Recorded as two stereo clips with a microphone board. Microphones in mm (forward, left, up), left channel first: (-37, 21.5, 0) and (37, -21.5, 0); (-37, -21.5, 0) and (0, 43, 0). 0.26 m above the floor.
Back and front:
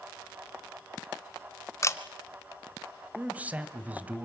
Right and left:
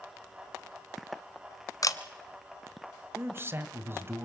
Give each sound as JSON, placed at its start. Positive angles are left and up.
{"t": 1.8, "sound": "a camera shutter", "azimuth_deg": -155, "distance_m": 1.0}
{"t": 3.1, "sound": "a man speaking", "azimuth_deg": 30, "distance_m": 1.3}